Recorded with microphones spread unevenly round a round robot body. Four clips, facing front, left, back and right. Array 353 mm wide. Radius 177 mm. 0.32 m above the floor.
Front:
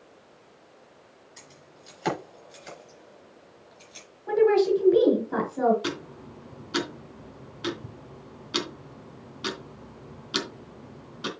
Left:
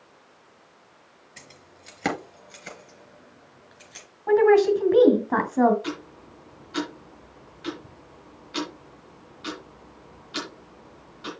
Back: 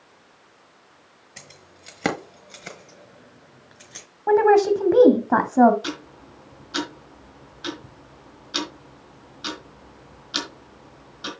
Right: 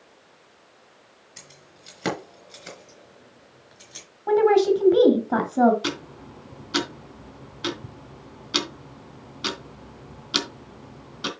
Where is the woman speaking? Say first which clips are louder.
Left 1 dB, back 4 dB; 170° right, 2.0 m.